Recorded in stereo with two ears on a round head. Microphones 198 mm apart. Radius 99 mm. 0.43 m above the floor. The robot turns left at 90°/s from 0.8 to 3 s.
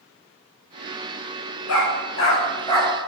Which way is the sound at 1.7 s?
70° left (ahead or behind).